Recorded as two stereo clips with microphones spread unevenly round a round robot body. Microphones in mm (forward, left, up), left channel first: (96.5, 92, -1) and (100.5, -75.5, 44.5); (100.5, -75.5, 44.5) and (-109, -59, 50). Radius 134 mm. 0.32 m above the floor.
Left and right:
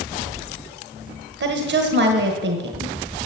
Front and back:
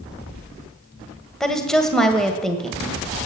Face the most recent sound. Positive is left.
turn(degrees=-90)